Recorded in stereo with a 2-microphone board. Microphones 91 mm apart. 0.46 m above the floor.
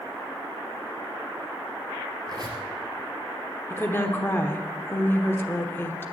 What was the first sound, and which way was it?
A squeak, 45° right (ahead or behind).